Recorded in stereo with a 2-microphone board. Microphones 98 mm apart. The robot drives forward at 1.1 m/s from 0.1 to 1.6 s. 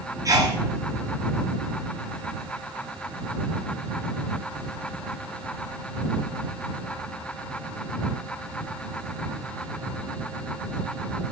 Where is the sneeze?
35° right (ahead or behind), 1.3 m; by 0.6 s 30° right (ahead or behind), 1.5 m.